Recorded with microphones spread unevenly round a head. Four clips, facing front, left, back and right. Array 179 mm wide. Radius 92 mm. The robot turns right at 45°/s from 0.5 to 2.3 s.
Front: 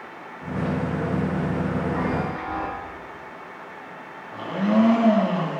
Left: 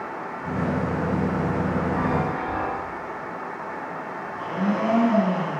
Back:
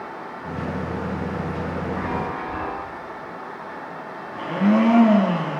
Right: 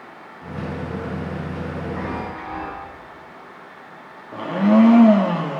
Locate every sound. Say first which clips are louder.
1.9 s a chime: left 4 dB, front 1 dB; 55° left, 6 m; by 2.7 s 70° left, 6 m
4.3 s a blender: right 10 dB, back 2 dB; 100° right, 1.8 m